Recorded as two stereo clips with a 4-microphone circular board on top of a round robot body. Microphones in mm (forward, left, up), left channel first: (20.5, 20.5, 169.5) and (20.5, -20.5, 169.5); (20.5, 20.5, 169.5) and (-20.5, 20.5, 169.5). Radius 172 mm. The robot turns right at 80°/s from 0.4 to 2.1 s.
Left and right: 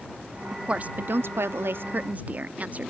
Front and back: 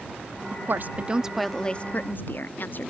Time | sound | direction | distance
0.5 | a woman speaking | 165° right | ?